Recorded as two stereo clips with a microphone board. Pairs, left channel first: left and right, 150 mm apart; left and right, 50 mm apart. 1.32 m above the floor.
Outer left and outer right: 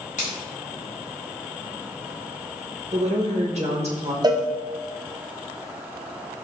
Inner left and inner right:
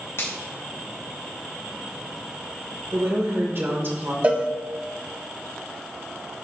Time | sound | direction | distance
0.2 | a finger snap | 55° left (ahead or behind) | 2.5 m
2.9 | a woman speaking | 50° right (ahead or behind) | 1.7 m
4.2 | a cowbell | 25° right (ahead or behind) | 0.7 m